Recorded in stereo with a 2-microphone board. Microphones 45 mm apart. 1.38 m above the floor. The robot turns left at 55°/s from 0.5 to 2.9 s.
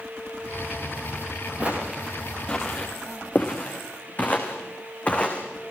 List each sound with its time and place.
1.6 s footsteps: 25° right (ahead or behind), 7.5 m; by 5.7 s 25° left (ahead or behind), 5 m